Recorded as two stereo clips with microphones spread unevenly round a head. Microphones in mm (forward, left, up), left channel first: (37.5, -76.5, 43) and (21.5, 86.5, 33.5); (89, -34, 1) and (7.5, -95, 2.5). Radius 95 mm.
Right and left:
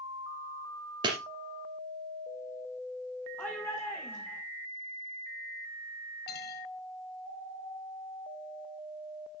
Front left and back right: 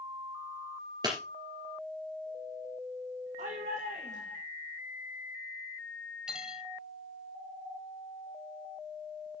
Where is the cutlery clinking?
60° right, 2.5 m.